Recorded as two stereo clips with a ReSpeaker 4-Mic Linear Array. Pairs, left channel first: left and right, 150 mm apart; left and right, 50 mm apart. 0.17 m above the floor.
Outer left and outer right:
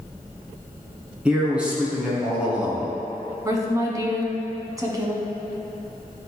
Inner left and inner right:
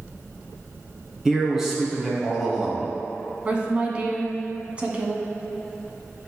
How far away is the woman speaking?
About 1.1 m.